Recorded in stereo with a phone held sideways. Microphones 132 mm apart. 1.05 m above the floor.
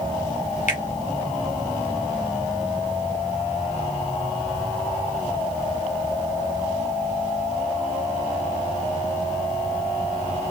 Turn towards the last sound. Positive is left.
turn(degrees=65)  # may be behind; listen again after turning